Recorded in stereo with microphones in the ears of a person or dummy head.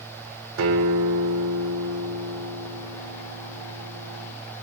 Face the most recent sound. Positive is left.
turn(degrees=-80)